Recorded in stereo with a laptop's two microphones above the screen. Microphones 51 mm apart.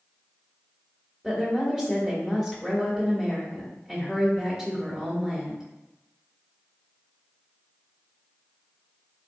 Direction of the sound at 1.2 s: 5° right (ahead or behind).